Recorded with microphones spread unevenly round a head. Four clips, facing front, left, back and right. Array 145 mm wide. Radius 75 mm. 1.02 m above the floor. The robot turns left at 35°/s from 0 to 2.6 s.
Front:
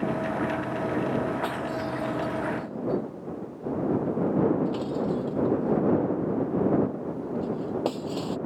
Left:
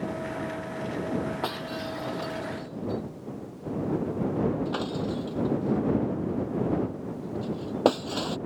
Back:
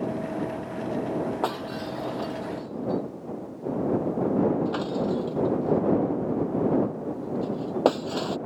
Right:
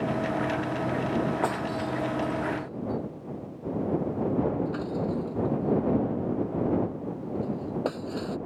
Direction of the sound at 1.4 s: 155° right.